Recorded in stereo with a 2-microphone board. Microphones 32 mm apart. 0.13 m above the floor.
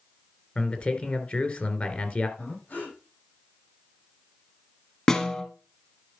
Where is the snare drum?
20° left (ahead or behind), 1.6 m.